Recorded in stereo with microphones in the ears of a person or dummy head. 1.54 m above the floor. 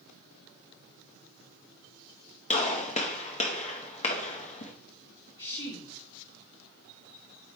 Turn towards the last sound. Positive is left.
turn(degrees=35)  # may be behind; listen again after turning